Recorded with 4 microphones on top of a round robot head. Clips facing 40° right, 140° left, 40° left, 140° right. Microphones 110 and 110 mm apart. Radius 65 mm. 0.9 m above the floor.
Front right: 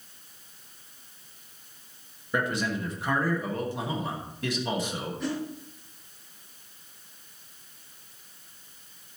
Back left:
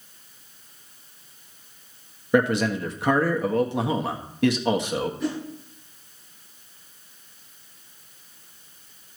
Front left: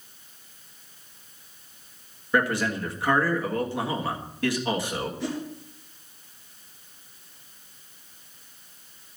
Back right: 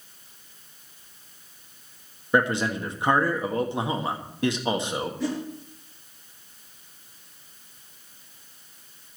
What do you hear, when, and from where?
2.3 s a man speaking: 155° left, 1.5 m
5.2 s a whoosh: 135° right, 4 m